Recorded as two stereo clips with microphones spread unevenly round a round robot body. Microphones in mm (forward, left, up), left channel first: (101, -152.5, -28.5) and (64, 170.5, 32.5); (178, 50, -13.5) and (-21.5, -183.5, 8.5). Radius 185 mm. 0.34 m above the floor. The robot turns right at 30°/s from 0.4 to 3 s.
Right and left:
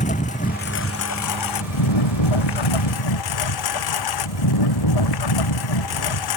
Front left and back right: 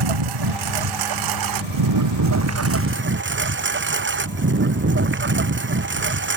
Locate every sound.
0.0 s a lawn mower: 155° right; by 6.4 s 75° right